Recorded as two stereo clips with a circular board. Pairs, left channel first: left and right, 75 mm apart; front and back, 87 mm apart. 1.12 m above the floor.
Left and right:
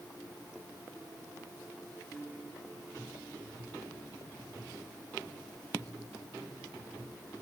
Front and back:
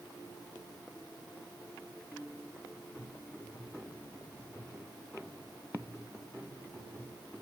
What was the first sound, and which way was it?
Only background noise.